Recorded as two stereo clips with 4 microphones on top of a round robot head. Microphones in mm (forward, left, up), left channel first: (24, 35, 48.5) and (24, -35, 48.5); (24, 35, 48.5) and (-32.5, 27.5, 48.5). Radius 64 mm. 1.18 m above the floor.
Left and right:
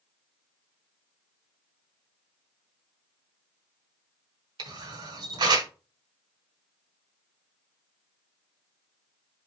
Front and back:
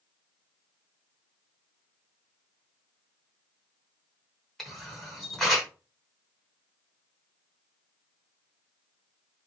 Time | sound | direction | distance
4.6 | a camera shutter | 80° right | 1.2 m